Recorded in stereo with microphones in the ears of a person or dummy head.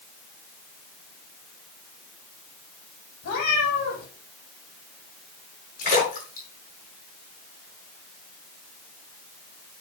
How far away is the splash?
About 6 m.